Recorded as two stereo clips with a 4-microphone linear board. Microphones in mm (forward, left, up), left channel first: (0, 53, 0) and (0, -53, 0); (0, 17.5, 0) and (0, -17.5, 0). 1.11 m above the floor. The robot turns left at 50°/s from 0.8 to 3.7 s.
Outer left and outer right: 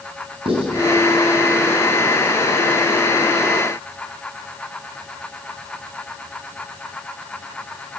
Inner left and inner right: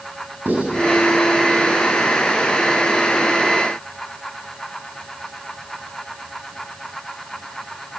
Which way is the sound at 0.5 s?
60° right (ahead or behind).